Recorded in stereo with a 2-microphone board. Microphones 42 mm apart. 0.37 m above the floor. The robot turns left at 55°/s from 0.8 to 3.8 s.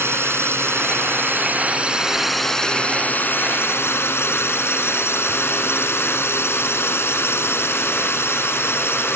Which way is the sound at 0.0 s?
95° right.